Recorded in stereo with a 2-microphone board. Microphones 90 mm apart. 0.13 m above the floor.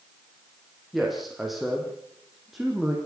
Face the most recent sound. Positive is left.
turn(degrees=0)  # may be behind; listen again after turning